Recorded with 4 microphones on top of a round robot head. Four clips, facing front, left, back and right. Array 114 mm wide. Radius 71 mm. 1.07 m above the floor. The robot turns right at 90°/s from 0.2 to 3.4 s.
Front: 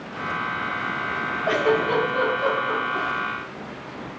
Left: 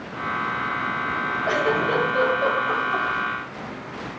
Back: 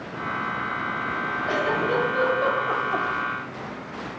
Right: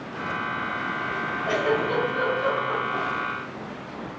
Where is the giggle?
30° left, 1.4 m; by 3.1 s 175° left, 1.4 m.